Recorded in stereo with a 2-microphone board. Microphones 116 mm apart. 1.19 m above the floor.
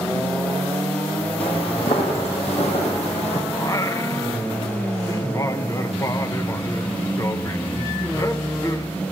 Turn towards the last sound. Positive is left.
turn(degrees=30)  # may be behind; listen again after turning